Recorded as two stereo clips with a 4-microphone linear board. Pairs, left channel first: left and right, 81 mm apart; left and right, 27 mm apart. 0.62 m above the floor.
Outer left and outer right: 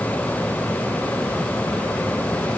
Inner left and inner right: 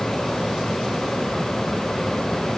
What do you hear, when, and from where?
Only background noise.